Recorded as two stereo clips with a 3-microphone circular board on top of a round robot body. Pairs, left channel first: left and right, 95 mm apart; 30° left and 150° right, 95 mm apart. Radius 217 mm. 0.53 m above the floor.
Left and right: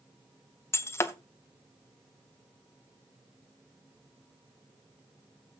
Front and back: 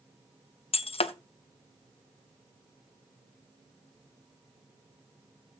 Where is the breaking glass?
25° left, 0.8 m.